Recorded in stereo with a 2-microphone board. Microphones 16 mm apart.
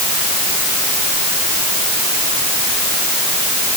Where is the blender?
I don't hear a blender.